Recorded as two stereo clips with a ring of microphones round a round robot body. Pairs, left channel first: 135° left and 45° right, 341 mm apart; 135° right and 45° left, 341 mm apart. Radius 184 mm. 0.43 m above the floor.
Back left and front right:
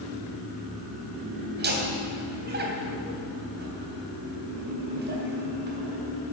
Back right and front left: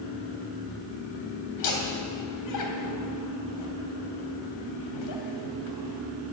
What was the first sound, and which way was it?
Laughter, 105° right.